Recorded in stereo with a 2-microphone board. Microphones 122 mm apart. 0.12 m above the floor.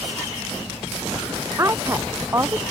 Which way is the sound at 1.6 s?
25° right (ahead or behind).